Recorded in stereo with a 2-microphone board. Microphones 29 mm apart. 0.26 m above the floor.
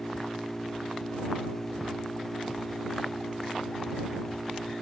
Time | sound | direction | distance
0.0 | an engine running | 10° left (ahead or behind) | ?